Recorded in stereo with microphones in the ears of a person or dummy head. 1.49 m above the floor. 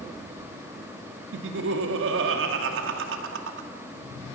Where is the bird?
I don't hear a bird.